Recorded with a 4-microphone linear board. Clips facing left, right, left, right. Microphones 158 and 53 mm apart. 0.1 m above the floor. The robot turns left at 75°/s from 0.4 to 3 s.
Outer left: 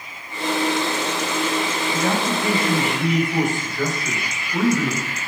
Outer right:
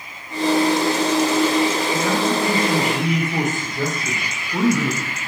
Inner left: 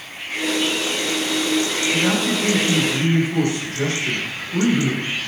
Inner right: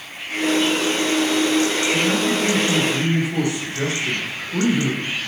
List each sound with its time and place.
1.9 s a man speaking: 60° left, 6.5 m; by 5.0 s 20° right, 6.5 m